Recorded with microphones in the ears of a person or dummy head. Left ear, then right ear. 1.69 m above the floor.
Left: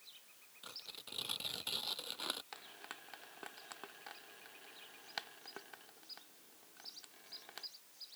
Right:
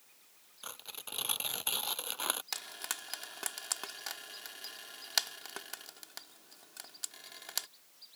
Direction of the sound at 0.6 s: 35° right (ahead or behind).